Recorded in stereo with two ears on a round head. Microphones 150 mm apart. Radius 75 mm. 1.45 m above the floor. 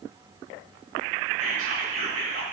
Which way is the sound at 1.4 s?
50° right (ahead or behind).